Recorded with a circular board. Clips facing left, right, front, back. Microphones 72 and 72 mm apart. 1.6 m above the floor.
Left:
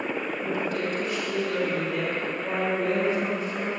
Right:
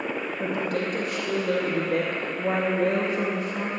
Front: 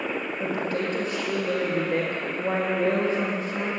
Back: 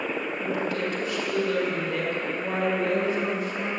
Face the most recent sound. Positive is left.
turn(degrees=-60)